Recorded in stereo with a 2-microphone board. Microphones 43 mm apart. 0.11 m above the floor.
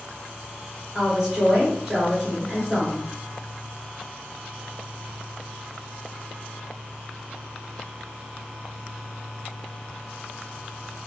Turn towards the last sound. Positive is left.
turn(degrees=-15)  # may be behind; listen again after turning